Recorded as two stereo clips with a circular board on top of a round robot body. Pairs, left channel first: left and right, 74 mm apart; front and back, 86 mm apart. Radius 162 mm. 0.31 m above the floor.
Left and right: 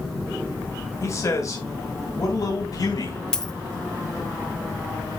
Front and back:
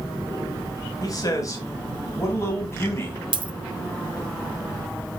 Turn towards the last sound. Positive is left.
turn(degrees=170)